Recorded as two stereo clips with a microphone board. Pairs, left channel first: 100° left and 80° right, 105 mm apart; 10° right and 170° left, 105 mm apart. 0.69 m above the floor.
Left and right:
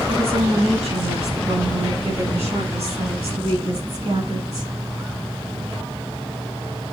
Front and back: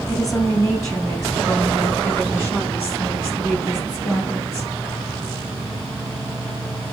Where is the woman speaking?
70° right, 5 m.